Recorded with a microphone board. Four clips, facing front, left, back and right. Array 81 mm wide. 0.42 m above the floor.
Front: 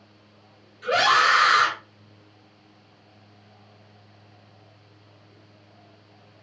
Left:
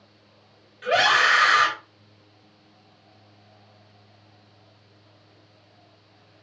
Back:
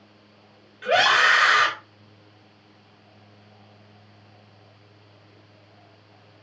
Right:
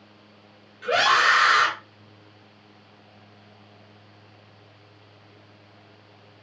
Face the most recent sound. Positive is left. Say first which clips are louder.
# even, back 1 dB
turn(degrees=170)